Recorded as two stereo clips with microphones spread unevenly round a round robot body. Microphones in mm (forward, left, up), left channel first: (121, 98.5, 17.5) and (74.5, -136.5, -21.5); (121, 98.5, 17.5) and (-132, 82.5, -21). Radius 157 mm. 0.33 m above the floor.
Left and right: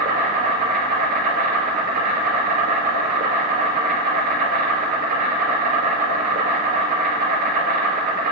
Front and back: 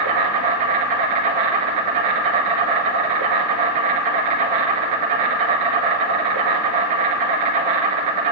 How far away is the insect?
About 1.1 m.